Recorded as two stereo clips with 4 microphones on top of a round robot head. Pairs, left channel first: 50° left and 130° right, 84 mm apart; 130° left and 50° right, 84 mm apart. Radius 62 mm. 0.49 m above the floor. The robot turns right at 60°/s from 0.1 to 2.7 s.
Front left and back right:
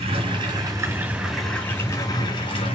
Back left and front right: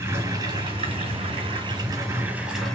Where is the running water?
115° right, 3.5 m; by 2.8 s 45° left, 3.5 m.